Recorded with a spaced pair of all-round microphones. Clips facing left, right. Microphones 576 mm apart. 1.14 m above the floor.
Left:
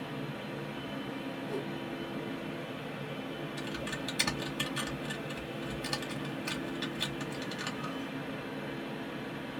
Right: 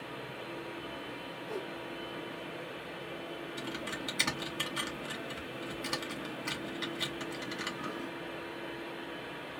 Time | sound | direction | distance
0.0 | a fan | 65° left (ahead or behind) | 0.9 m
1.5 | a whoosh | 60° left (ahead or behind) | 1.5 m
3.6 | typing on a keyboard | 20° left (ahead or behind) | 1.3 m